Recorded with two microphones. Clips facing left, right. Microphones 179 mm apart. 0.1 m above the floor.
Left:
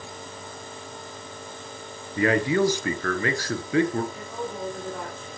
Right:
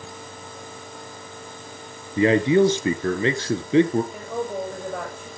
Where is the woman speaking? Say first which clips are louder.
Right 5 dB; 70° right (ahead or behind), 6.5 m.